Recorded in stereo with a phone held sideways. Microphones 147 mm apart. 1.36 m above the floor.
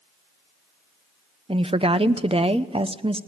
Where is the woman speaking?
40° right (ahead or behind), 0.8 m.